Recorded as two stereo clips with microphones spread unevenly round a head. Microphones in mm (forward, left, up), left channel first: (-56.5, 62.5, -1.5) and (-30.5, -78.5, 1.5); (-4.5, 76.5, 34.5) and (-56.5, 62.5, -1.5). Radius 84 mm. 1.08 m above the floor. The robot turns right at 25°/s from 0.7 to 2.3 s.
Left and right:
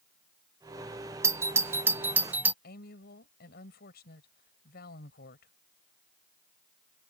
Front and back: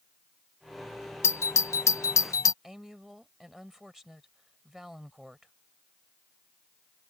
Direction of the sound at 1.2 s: 45° right.